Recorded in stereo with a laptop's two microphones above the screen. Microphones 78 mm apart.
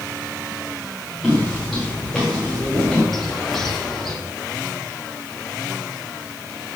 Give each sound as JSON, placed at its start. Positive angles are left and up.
{"t": 1.2, "sound": "footsteps", "side_deg": -5, "distance_m": 7.5}
{"t": 3.1, "sound": "a bird", "side_deg": 0, "distance_m": 2.0}